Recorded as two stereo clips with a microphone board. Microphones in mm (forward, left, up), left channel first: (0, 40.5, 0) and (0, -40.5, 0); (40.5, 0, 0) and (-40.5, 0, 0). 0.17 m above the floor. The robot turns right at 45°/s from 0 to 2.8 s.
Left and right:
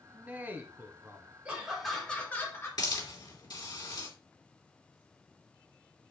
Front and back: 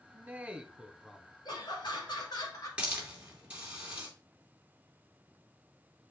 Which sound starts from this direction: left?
A hiss, at 2.8 s.